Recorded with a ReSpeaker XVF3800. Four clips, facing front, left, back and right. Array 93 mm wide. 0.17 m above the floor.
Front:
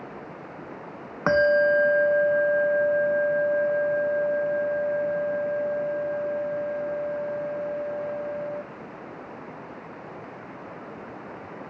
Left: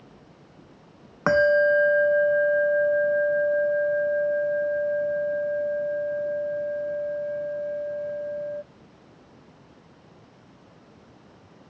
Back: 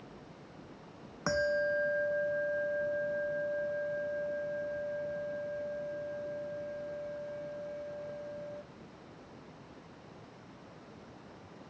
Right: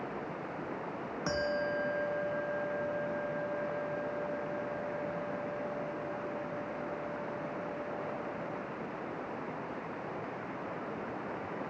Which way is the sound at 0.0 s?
45° right.